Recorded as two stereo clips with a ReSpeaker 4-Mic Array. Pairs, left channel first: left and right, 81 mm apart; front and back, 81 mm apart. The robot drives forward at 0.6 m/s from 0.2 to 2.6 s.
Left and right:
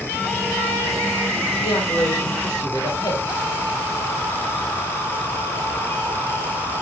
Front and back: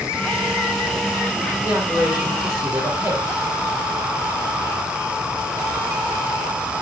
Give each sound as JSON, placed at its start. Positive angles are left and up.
{"t": 1.6, "sound": "a man speaking", "azimuth_deg": 115, "distance_m": 5.0}